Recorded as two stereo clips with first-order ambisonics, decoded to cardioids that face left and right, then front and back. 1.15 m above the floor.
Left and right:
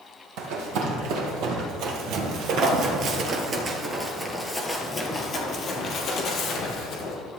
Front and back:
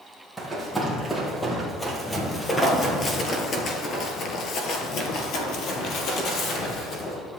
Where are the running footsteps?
95° right, 2.5 m; by 7.2 s 45° left, 2.5 m.